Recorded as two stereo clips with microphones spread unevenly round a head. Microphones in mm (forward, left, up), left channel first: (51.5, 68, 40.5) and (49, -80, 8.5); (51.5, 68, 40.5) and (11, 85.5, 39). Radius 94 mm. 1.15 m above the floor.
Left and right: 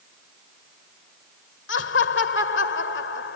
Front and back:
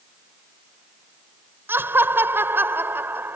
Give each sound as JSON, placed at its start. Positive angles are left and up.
{"t": 1.7, "sound": "laughter", "azimuth_deg": 120}